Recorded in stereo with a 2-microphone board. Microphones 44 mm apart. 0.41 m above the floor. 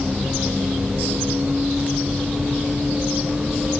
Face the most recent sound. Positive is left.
turn(degrees=-20)  # may be behind; listen again after turning